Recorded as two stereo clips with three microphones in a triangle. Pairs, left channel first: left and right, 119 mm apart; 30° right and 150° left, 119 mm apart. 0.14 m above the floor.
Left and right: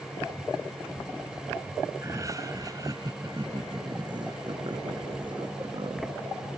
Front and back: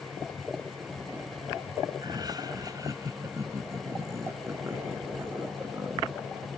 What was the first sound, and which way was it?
Laughter, 155° right.